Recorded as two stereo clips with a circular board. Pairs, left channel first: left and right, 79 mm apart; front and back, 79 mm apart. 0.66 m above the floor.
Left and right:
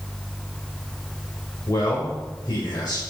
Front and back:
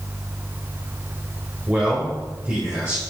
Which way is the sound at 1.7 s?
110° left.